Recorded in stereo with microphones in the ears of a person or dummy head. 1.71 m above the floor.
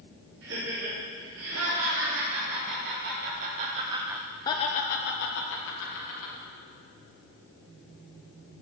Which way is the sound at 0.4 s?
75° right (ahead or behind).